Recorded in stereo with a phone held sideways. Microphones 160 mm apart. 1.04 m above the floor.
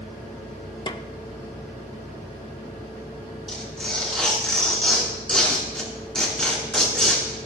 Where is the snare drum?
30° left (ahead or behind), 0.7 m.